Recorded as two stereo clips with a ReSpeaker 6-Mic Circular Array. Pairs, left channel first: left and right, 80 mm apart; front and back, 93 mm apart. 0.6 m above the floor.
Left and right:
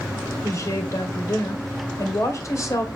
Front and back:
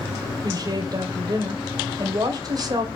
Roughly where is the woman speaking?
Behind left.